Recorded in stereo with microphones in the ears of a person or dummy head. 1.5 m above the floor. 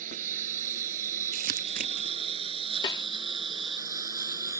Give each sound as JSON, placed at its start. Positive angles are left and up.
{"t": 0.0, "sound": "a lawn mower", "side_deg": -50}
{"t": 1.3, "sound": "crumpling", "side_deg": -50}
{"t": 2.8, "sound": "a snare drum", "side_deg": 20}